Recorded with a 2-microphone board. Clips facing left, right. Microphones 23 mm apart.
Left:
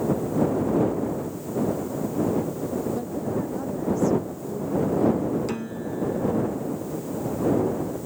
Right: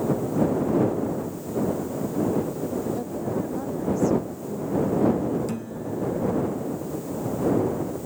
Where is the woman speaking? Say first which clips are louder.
Even; 5° right (ahead or behind).